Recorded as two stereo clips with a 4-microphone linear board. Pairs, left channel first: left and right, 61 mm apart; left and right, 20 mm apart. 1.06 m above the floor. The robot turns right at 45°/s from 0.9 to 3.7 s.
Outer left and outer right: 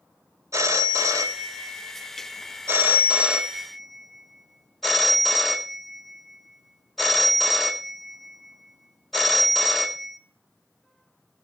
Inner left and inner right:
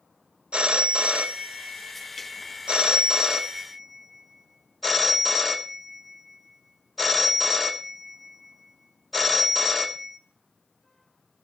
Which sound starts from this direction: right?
A phone ringing, at 0.5 s.